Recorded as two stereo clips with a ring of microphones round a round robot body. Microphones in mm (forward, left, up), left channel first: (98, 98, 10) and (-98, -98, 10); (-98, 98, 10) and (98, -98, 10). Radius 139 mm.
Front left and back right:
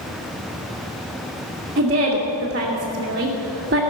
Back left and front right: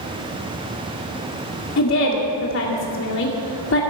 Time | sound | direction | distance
1.8 | a woman speaking | 170° left | 2 m